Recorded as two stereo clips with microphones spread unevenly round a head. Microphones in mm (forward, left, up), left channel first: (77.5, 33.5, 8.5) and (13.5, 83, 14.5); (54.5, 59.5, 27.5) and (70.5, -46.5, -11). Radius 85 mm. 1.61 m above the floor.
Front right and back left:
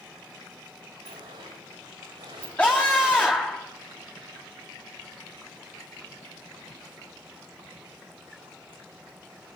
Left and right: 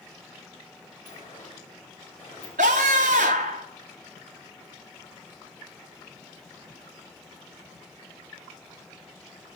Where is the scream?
120° right, 3 m.